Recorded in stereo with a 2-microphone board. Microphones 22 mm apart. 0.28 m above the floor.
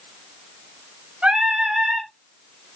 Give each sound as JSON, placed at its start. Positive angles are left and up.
{"t": 1.2, "sound": "singing", "side_deg": -55, "distance_m": 3.5}